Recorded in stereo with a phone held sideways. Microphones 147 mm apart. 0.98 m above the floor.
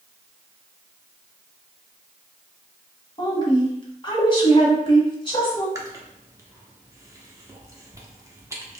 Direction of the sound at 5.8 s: 20° right (ahead or behind).